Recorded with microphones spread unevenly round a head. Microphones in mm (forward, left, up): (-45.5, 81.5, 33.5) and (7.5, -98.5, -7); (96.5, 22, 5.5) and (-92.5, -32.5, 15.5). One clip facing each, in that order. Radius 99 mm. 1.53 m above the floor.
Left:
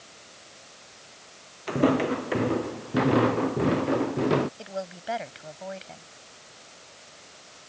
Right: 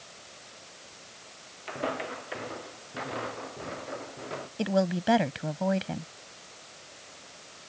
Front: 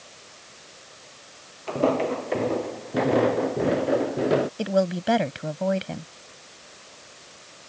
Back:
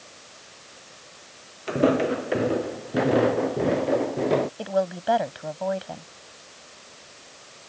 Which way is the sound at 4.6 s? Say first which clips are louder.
Right 9 dB, front 2 dB; 40° right.